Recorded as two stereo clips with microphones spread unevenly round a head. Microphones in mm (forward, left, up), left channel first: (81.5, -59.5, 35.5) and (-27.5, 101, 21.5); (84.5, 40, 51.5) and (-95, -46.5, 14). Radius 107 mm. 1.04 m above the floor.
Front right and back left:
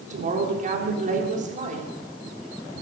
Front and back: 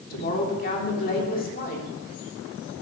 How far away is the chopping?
I don't hear chopping.